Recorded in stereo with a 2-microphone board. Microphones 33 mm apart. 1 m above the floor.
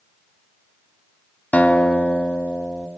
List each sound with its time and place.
1.5 s a guitar: 50° left (ahead or behind), 2 m